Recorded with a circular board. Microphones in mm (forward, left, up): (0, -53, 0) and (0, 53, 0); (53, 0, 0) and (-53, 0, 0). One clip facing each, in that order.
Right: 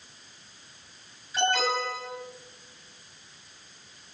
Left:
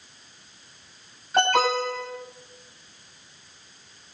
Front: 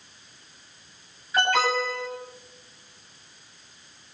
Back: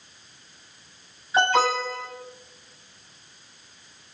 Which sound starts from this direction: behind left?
An alarm, at 1.3 s.